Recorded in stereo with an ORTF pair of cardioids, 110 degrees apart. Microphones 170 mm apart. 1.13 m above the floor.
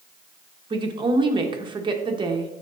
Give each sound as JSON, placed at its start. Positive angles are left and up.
{"t": 0.7, "sound": "a woman speaking", "azimuth_deg": -30, "distance_m": 1.2}